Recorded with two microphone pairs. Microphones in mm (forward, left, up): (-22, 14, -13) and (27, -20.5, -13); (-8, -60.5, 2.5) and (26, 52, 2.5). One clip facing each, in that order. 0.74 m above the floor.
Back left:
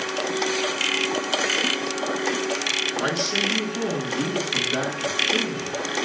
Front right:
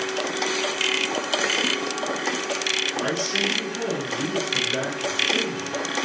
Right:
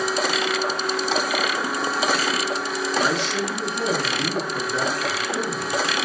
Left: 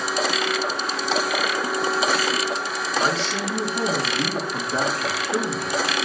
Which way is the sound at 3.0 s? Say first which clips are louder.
Back left 2 dB, even; 130° left.